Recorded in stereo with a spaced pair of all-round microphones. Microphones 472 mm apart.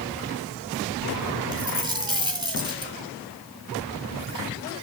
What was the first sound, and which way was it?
A dropped coin, 10° right (ahead or behind).